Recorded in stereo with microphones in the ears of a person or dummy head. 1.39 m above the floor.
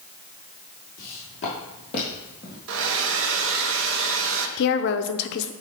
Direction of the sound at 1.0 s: 40° left (ahead or behind).